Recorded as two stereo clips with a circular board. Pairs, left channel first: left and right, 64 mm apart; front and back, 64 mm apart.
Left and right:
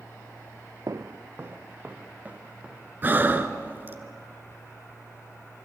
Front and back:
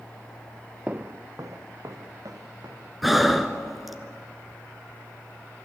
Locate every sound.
0.9 s footsteps: 110° right, 0.7 m; by 2.9 s 160° right, 3.5 m
3.0 s breathing: 95° right, 1.4 m